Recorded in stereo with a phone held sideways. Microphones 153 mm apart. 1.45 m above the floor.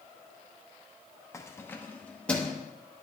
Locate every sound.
1.3 s keys jangling: 20° left (ahead or behind), 0.6 m; by 2.6 s 5° left (ahead or behind), 1.0 m